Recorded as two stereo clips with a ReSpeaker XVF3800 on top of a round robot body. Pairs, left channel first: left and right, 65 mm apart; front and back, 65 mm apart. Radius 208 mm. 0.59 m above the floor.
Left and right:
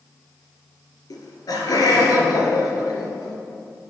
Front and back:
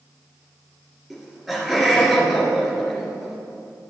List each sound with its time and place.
1.1 s laughter: 95° left, 2.5 m